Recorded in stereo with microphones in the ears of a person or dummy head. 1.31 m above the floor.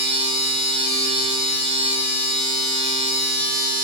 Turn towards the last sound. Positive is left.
turn(degrees=-75)  # may be behind; listen again after turning